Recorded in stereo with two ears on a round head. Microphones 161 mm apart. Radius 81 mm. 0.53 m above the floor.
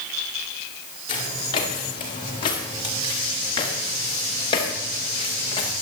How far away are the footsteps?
About 9.5 m.